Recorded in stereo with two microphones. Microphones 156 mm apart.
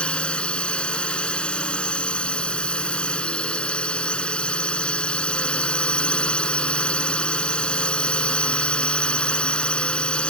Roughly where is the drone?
Centre.